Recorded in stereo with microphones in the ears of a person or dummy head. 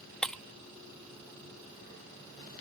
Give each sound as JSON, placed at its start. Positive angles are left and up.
{"t": 0.2, "sound": "breaking glass", "side_deg": 5}